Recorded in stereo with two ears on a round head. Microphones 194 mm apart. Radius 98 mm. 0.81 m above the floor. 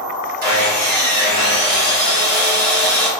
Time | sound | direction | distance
0.4 | sawing | 45° right (ahead or behind) | 1.1 m